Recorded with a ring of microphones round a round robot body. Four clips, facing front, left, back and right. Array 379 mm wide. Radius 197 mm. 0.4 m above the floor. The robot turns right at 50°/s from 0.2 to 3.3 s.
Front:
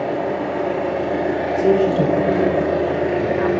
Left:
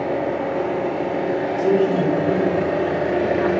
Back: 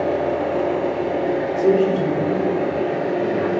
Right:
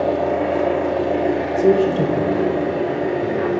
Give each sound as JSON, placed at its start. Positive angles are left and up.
{"t": 0.0, "sound": "an engine running", "azimuth_deg": -110, "distance_m": 1.9}
{"t": 1.6, "sound": "a man speaking", "azimuth_deg": -80, "distance_m": 1.6}